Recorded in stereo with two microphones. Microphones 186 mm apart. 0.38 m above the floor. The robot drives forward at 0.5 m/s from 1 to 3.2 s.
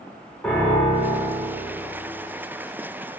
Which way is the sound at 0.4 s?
5° left (ahead or behind).